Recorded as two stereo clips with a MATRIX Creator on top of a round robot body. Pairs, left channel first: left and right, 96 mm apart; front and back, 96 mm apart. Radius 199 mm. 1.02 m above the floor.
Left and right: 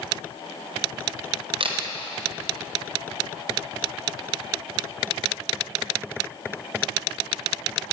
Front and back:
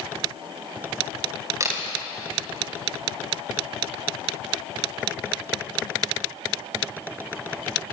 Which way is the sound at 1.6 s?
120° right.